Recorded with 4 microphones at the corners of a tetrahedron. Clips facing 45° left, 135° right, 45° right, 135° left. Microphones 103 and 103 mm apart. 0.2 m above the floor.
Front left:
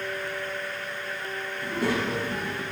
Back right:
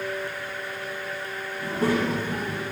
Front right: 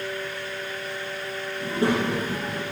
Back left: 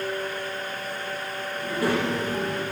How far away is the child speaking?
About 1.2 m.